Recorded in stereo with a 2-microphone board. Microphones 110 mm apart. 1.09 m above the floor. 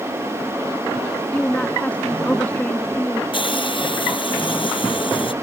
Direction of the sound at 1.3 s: 10° left (ahead or behind).